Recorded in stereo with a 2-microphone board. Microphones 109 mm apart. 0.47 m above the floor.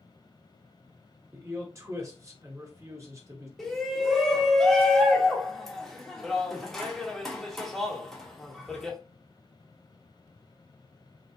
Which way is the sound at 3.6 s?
Centre (ahead or behind).